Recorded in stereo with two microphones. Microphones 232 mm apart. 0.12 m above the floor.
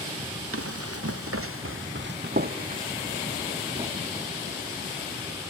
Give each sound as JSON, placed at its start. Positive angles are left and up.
{"t": 0.5, "sound": "running footsteps", "side_deg": -70, "distance_m": 1.0}